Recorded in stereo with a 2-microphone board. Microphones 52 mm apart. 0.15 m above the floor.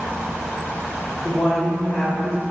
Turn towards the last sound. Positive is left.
turn(degrees=35)  # may be behind; listen again after turning